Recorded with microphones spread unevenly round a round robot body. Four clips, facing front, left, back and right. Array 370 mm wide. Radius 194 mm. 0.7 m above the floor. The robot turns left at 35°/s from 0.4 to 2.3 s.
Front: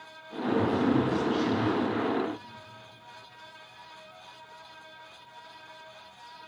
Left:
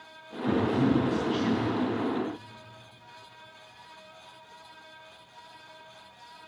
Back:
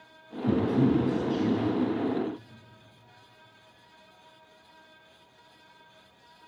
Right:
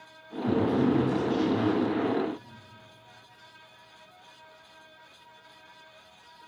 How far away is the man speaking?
About 6.5 m.